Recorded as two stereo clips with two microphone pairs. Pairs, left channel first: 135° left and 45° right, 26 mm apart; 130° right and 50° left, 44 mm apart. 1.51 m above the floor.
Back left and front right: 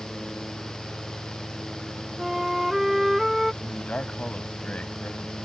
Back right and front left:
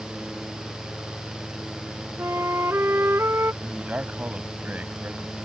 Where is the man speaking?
105° left.